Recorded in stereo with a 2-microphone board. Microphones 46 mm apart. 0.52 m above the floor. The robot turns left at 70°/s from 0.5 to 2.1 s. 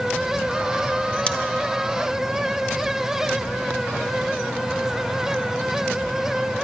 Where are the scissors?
25° left (ahead or behind), 0.8 m; by 1.4 s 30° left (ahead or behind), 0.8 m.